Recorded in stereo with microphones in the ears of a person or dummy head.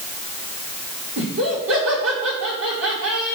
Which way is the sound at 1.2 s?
70° right (ahead or behind).